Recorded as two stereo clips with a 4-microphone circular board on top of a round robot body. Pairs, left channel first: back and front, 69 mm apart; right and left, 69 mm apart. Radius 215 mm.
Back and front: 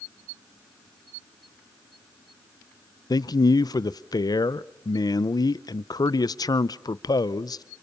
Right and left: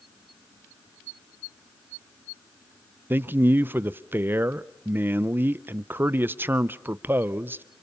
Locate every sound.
3.1 s a man speaking: 150° left, 0.7 m